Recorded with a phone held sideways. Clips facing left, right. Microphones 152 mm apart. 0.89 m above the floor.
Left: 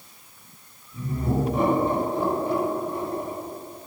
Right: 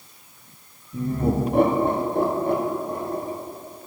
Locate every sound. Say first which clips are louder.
0.9 s laughter: right 4 dB; 60° right (ahead or behind), 1.9 m; by 3.4 s 40° right (ahead or behind), 2.0 m